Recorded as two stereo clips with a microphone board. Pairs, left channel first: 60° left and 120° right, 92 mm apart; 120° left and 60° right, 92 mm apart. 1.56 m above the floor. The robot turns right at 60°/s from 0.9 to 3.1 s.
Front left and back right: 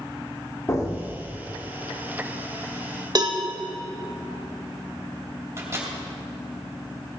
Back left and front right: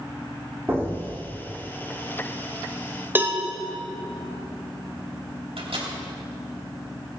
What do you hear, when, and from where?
0.7 s an explosion: 5° left, 2.5 m; by 1.4 s 35° left, 2.5 m
3.1 s a cowbell: 120° right, 1.0 m
5.6 s a microwave: 60° right, 2.5 m